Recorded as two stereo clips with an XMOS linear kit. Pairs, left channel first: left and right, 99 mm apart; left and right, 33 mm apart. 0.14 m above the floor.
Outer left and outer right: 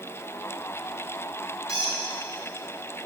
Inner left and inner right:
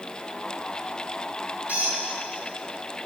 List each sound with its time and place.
1.7 s a squeak: 55° right (ahead or behind), 1.9 m